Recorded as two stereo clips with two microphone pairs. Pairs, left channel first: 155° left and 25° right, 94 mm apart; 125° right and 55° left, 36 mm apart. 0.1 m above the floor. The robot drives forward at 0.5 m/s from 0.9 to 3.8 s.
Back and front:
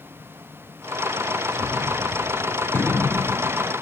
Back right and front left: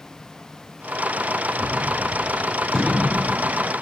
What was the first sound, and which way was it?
A gunshot, straight ahead.